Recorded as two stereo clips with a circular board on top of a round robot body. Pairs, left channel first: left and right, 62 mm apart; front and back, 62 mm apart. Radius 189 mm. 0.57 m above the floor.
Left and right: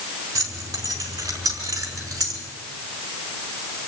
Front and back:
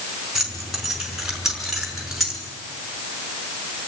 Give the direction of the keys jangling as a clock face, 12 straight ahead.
3 o'clock.